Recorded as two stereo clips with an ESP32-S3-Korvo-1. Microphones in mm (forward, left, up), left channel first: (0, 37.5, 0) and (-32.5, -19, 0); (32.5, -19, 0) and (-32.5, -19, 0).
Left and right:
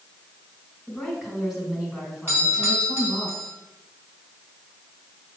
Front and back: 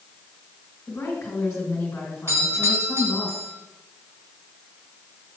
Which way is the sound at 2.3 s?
155° right.